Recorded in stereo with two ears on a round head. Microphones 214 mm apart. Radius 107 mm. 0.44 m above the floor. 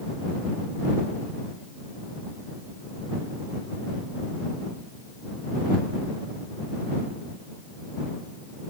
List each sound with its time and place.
Only background noise.